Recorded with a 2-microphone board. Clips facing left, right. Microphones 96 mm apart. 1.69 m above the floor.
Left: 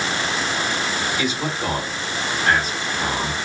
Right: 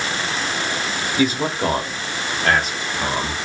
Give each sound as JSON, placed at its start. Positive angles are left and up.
{"t": 1.2, "sound": "a man speaking", "side_deg": -35, "distance_m": 1.2}